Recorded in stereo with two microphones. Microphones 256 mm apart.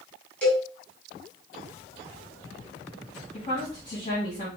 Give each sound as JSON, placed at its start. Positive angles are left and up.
{"t": 0.4, "sound": "a cowbell", "side_deg": 5, "distance_m": 2.5}
{"t": 3.3, "sound": "a woman speaking", "side_deg": 30, "distance_m": 2.5}